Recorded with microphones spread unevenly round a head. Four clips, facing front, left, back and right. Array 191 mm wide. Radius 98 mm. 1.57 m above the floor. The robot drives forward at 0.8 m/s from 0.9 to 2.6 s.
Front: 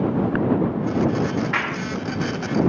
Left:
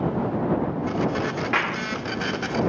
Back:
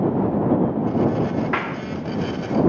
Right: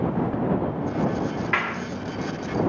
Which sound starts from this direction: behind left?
A clap, at 1.5 s.